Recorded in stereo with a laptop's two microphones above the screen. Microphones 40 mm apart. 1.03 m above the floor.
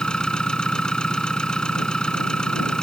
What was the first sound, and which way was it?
An engine running, 20° left (ahead or behind).